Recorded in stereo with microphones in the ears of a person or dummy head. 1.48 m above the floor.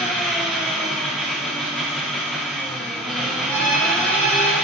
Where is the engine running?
5° left (ahead or behind), 1.1 m.